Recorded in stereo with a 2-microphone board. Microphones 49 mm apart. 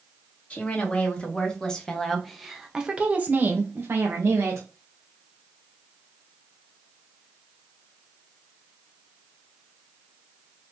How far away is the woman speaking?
About 1.7 m.